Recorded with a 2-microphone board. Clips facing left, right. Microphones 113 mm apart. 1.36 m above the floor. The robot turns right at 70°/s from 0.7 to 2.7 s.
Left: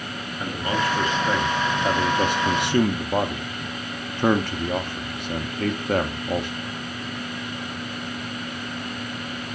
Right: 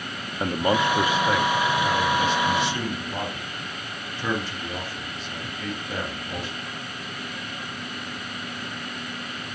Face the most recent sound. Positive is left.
turn(degrees=60)  # may be behind; listen again after turning